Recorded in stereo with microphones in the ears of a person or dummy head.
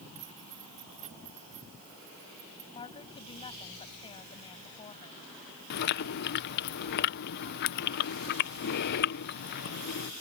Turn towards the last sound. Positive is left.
turn(degrees=50)  # may be behind; listen again after turning